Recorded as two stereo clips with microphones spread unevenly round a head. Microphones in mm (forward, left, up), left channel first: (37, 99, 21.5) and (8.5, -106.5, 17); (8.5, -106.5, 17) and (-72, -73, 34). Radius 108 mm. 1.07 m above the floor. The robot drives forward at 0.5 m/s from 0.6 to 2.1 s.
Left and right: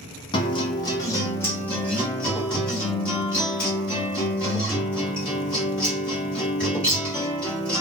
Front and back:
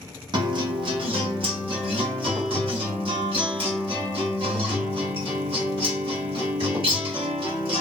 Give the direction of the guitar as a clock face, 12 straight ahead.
7 o'clock.